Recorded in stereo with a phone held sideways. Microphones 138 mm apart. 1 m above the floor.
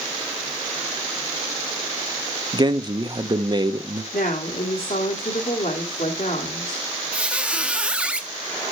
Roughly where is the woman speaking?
Left.